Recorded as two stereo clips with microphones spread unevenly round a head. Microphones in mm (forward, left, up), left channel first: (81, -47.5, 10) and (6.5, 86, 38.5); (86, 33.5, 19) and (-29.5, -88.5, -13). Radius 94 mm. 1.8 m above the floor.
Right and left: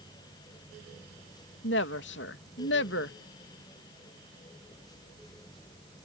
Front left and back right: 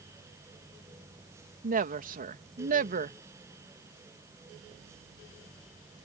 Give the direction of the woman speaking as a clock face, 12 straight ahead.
3 o'clock.